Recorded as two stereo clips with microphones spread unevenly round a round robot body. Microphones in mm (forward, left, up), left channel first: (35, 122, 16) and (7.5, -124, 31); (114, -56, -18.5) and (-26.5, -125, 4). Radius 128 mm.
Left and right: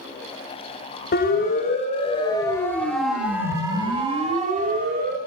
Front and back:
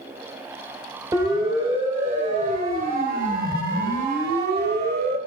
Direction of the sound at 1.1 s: 130° left.